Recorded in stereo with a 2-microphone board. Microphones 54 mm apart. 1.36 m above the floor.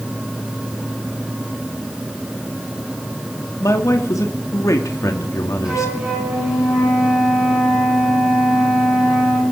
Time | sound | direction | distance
3.6 | a man speaking | 80° left | 2 m
5.7 | a flute | 15° right (ahead or behind) | 9.5 m